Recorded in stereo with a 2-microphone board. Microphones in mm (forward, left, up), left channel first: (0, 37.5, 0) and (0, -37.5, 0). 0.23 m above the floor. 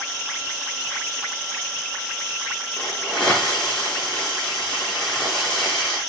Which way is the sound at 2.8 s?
10° left (ahead or behind).